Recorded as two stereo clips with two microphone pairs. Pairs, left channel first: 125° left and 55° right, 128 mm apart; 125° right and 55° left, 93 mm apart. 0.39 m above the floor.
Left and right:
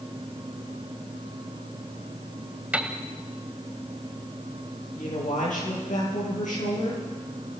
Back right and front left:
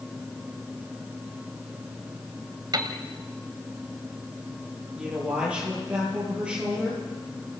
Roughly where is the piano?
Ahead.